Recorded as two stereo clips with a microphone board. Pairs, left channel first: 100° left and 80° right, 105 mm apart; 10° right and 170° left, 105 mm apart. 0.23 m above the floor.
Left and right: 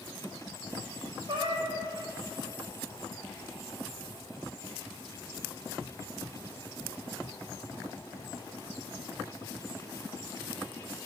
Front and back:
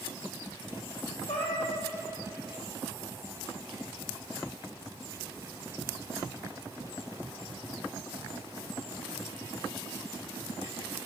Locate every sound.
1.3 s a cat meowing: 40° right, 1.5 m